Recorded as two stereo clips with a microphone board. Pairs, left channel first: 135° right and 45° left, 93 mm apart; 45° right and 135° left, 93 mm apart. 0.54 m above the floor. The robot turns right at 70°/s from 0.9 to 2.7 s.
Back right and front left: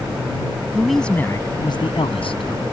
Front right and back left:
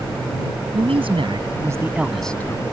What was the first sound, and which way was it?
A man speaking, 135° left.